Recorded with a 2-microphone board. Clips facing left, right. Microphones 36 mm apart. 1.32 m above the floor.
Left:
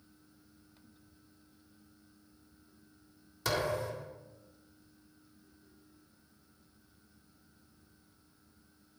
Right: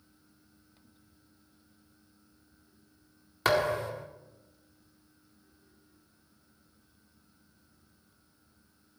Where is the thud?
50° right (ahead or behind), 1.7 m.